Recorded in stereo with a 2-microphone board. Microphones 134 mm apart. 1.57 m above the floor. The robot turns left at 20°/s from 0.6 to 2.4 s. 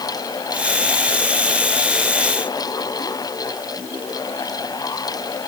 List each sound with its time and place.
Only background noise.